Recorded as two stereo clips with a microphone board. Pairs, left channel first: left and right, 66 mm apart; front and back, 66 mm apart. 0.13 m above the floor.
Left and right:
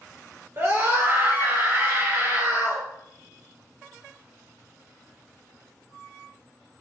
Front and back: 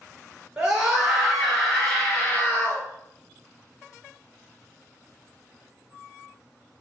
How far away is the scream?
About 1.9 m.